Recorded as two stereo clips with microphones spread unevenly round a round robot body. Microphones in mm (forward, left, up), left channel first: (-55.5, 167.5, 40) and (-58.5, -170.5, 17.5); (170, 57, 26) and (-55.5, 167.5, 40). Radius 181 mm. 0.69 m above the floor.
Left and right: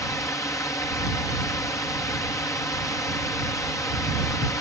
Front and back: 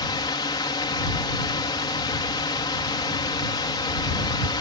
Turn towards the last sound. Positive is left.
turn(degrees=10)